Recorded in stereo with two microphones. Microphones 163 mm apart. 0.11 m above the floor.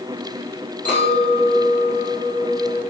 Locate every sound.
0.8 s a clink: 10° left (ahead or behind), 1.6 m